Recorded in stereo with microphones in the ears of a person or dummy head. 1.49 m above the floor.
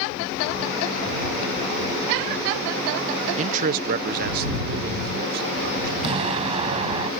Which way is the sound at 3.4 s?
35° right (ahead or behind).